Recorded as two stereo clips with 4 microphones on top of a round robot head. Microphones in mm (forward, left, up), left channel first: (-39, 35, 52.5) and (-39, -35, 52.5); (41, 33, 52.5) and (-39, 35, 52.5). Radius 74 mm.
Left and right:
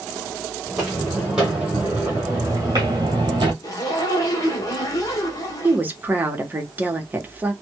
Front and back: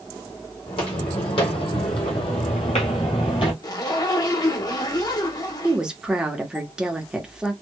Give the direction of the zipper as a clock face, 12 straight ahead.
11 o'clock.